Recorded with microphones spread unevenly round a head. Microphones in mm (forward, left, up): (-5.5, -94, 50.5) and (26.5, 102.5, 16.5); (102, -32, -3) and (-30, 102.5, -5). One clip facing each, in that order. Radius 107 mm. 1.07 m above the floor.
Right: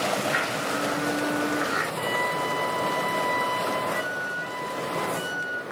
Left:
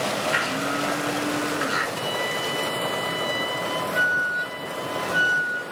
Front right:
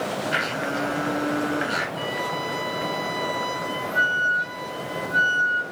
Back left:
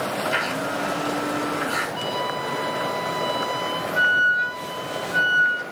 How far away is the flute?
About 3 m.